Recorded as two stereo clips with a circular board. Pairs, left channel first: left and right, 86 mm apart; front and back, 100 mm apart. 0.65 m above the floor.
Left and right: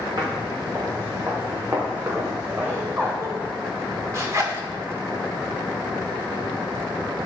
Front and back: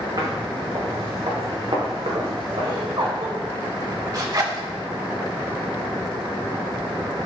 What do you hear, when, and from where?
0.2 s footsteps: 130° right, 4.5 m; by 3.1 s 155° right, 5.5 m
2.6 s laughter: 145° right, 2.5 m
4.1 s a zipper: 135° right, 1.8 m